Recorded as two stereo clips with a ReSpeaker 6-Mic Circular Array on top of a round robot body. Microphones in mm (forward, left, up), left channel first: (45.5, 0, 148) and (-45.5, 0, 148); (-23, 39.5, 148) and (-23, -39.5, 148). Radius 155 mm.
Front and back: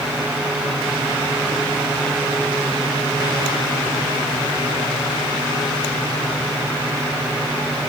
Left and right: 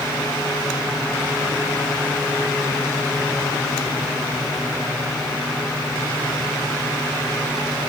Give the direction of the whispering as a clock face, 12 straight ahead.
No whispering in this recording.